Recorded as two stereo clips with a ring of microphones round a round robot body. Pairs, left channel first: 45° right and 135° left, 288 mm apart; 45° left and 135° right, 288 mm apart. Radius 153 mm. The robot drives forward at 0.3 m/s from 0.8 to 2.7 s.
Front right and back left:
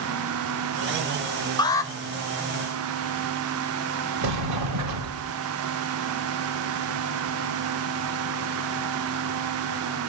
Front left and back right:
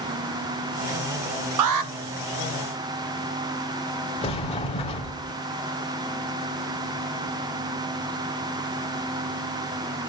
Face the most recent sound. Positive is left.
turn(degrees=115)